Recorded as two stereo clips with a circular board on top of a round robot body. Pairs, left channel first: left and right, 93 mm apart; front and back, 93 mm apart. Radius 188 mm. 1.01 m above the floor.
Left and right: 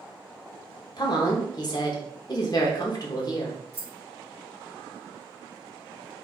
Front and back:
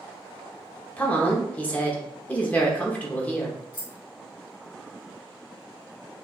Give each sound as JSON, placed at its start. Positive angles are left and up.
{"t": 1.0, "sound": "a woman speaking", "azimuth_deg": 70, "distance_m": 1.0}
{"t": 3.7, "sound": "keys jangling", "azimuth_deg": -30, "distance_m": 1.6}